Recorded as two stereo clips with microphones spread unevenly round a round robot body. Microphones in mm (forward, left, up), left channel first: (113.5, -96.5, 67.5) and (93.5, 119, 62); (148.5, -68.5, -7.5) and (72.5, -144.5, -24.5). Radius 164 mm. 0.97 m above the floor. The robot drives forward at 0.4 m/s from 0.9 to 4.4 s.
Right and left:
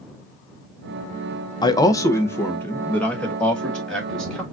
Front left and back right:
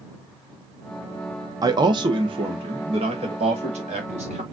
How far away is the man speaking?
About 0.5 m.